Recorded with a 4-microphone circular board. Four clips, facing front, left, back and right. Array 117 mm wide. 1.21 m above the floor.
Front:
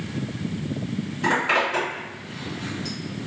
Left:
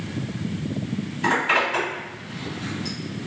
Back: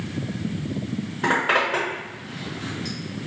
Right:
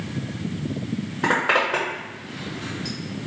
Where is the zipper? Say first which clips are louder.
Right 1 dB, back 1 dB; 110° right, 1.1 m.